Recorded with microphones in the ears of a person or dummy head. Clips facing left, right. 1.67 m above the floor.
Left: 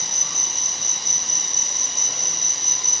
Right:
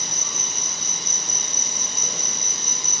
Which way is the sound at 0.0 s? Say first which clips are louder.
Right 2 dB; 65° right (ahead or behind).